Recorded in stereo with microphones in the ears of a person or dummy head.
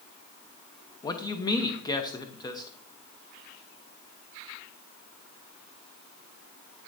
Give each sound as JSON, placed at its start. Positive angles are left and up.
{"t": 1.0, "sound": "a man speaking", "side_deg": 20, "distance_m": 0.8}